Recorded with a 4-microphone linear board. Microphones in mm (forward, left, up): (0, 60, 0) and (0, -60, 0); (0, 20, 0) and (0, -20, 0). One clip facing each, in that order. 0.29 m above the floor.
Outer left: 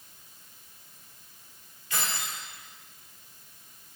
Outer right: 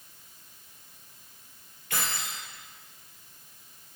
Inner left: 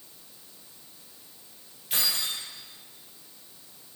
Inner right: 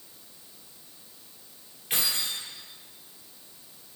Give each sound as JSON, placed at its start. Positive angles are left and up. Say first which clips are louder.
{"t": 1.9, "sound": "keys jangling", "louder": "even, even", "side_deg": -55, "distance_m": 3.5}